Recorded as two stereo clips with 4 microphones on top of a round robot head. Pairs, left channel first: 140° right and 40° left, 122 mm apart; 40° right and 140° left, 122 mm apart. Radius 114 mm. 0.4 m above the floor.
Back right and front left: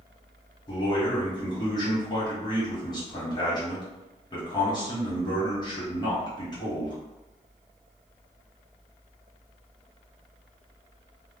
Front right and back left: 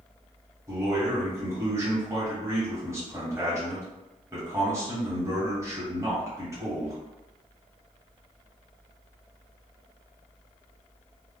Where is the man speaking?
165° right, 1.8 m.